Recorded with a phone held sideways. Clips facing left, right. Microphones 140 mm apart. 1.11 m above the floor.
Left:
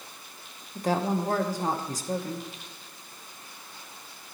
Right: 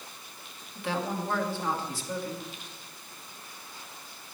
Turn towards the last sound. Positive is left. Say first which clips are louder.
# left 5 dB
turn(degrees=40)  # may be behind; listen again after turning